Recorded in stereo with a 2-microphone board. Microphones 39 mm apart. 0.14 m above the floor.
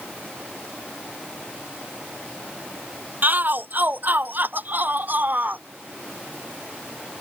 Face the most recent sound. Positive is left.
turn(degrees=-50)  # may be behind; listen again after turning